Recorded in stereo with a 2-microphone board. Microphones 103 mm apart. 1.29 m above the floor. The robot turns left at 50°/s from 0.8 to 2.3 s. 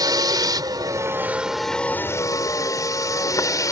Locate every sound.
0.0 s a vehicle: 140° right; by 3.7 s 145° left